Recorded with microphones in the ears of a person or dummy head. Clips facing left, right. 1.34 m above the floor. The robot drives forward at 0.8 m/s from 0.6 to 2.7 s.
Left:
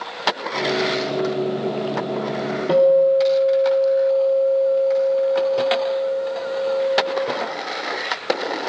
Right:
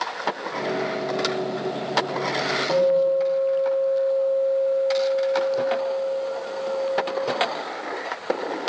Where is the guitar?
35° left (ahead or behind), 2 m.